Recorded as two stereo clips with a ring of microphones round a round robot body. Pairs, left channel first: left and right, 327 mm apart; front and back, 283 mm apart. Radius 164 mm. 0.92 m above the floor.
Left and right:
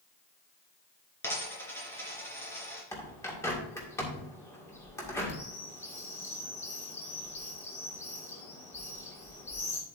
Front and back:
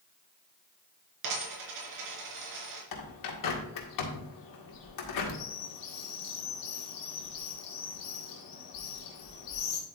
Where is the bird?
10° left, 1.9 m.